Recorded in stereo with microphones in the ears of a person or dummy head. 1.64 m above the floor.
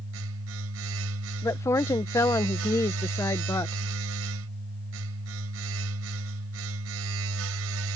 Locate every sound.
0.0 s a machine running: 75° right (ahead or behind)
1.4 s a woman speaking: 15° left (ahead or behind)